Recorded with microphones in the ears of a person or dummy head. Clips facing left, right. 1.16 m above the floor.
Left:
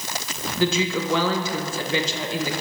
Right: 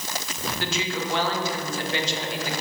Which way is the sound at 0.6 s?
65° left (ahead or behind).